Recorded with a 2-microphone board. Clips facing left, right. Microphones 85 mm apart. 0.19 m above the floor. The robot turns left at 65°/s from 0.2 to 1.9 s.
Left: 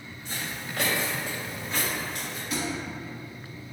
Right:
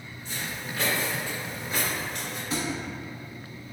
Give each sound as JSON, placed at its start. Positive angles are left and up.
{"t": 0.2, "sound": "footsteps", "side_deg": 80, "distance_m": 1.9}
{"t": 2.5, "sound": "a thud", "side_deg": -35, "distance_m": 0.8}